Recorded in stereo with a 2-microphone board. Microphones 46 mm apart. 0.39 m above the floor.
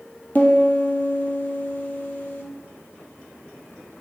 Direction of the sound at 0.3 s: 40° left (ahead or behind).